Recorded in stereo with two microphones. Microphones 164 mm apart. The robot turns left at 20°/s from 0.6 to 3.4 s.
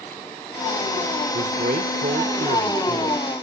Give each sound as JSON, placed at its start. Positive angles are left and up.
{"t": 1.3, "sound": "a man speaking", "azimuth_deg": -95, "distance_m": 1.6}